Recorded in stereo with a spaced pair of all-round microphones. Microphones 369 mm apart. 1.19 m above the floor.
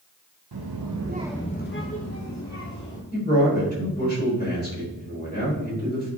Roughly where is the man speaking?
Left.